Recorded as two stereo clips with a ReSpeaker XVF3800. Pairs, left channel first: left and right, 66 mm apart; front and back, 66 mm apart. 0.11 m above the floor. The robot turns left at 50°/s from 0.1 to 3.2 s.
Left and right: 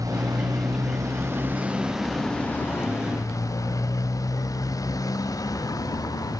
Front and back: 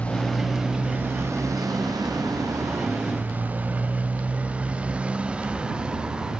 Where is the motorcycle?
70° right; by 6.4 s 105° left.